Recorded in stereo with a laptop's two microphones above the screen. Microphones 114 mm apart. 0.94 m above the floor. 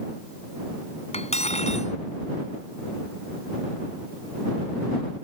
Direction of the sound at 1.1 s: 75° left (ahead or behind).